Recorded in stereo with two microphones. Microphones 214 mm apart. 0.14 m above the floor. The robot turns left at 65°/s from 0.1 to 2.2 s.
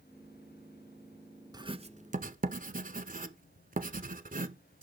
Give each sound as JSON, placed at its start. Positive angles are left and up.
{"t": 1.5, "sound": "writing", "side_deg": -20, "distance_m": 0.8}